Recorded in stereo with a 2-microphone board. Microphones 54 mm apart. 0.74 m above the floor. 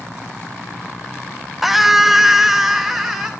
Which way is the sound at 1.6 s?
5° right (ahead or behind).